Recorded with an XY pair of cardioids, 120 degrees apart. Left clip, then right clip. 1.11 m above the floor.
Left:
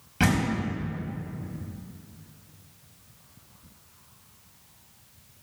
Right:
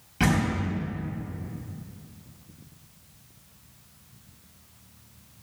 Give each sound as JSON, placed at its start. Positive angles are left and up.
{"t": 0.2, "sound": "a door slam", "azimuth_deg": 15, "distance_m": 4.5}